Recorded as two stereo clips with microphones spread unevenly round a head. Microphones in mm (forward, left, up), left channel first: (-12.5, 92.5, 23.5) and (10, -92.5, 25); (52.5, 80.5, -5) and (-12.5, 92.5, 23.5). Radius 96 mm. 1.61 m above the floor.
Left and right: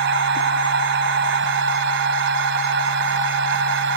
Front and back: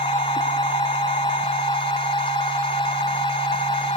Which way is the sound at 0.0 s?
50° right.